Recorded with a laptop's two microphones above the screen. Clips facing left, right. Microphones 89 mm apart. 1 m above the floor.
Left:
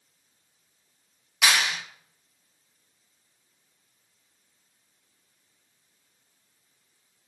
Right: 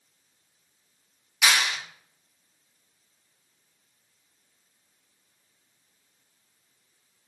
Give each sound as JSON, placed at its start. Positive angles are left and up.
{"t": 1.4, "sound": "a clap", "side_deg": 65, "distance_m": 3.0}